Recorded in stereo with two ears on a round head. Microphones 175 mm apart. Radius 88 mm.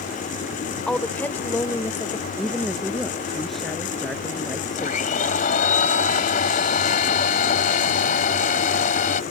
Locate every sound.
0.9 s a woman speaking: 5° left (ahead or behind); by 2.3 s 15° left (ahead or behind)
2.4 s a woman speaking: centre (ahead or behind)
4.8 s a blender: 45° left (ahead or behind)